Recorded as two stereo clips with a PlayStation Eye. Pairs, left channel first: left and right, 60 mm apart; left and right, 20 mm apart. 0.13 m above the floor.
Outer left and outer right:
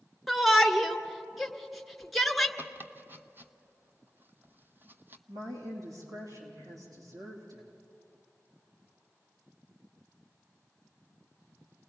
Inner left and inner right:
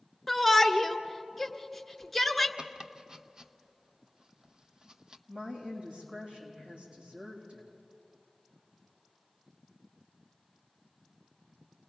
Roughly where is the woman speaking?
Right.